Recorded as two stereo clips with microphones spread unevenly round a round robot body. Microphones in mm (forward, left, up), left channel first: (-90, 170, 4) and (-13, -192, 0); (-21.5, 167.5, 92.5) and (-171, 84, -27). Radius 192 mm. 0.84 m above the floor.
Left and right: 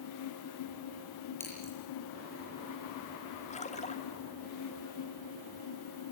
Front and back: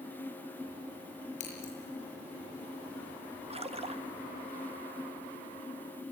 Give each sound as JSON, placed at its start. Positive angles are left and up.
{"t": 1.4, "sound": "scissors", "azimuth_deg": 20, "distance_m": 8.0}
{"t": 3.5, "sound": "a splash", "azimuth_deg": 175, "distance_m": 1.8}